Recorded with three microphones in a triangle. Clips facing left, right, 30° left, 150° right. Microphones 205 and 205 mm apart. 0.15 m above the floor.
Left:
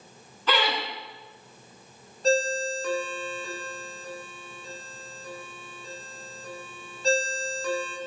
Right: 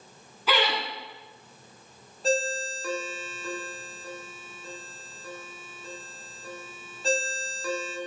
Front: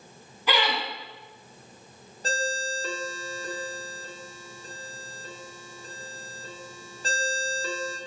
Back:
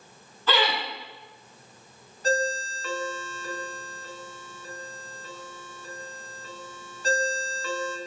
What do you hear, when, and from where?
0.5 s laughter: 20° right, 1.2 m
2.2 s a ringtone: 5° right, 0.6 m